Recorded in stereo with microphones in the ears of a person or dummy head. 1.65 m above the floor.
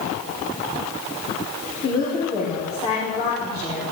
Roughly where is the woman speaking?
Left.